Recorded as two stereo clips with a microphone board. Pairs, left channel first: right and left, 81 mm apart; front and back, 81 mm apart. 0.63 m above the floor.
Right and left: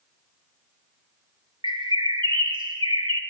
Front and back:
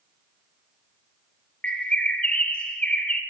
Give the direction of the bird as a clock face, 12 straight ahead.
10 o'clock.